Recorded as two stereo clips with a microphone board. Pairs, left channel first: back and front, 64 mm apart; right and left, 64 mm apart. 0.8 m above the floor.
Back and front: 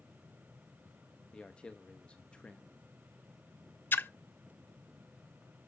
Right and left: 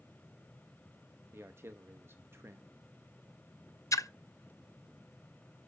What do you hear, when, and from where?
1.3 s a man speaking: 110° left, 0.7 m
3.9 s a splash: 125° right, 0.5 m